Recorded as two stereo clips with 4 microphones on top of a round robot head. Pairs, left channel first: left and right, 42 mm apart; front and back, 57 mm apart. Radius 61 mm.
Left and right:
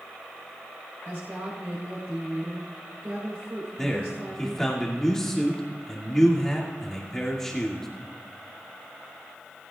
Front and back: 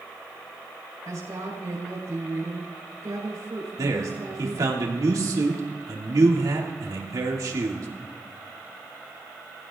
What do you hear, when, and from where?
1.1 s a woman speaking: 140° right, 4.5 m
3.8 s a man speaking: 170° left, 2.5 m